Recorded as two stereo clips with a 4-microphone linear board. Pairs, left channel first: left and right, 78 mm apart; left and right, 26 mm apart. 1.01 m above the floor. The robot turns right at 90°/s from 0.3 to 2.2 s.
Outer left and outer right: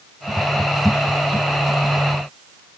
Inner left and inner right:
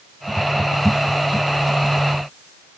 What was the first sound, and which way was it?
Only background noise.